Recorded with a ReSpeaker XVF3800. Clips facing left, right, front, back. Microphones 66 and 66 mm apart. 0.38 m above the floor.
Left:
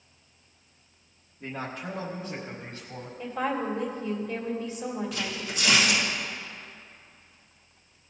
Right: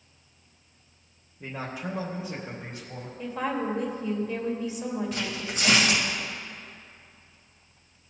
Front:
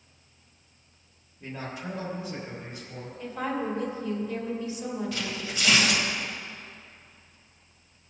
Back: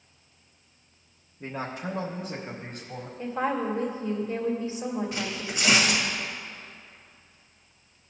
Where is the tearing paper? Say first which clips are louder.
Right 1 dB, back 1 dB; 115° right, 1.8 m.